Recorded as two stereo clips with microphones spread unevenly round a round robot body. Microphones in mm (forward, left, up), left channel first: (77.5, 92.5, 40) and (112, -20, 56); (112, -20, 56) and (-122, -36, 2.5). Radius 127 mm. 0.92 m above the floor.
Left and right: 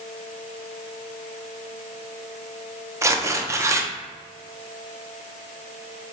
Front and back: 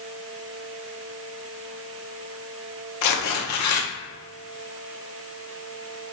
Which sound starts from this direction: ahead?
Tearing paper, at 3.0 s.